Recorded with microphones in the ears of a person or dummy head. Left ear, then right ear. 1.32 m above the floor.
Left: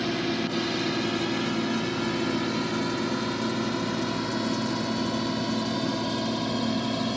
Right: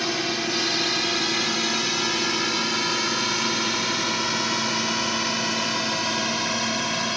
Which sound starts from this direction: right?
A drone, at 0.0 s.